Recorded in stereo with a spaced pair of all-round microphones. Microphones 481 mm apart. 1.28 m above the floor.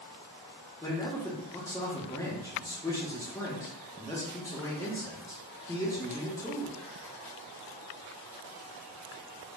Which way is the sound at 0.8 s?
5° left (ahead or behind).